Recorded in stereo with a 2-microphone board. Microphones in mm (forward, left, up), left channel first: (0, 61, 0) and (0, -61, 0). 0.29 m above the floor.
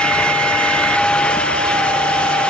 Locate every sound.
Only background noise.